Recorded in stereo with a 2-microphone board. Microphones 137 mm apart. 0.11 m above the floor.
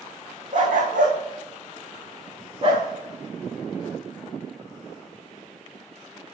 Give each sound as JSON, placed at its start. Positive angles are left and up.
{"t": 0.5, "sound": "a dog barking", "side_deg": -80, "distance_m": 3.0}